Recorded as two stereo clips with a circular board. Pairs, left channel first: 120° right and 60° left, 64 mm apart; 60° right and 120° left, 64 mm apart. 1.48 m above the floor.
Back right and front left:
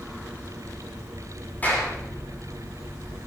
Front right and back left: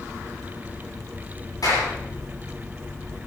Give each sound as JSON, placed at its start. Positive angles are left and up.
{"t": 1.6, "sound": "a clap", "azimuth_deg": -55, "distance_m": 9.5}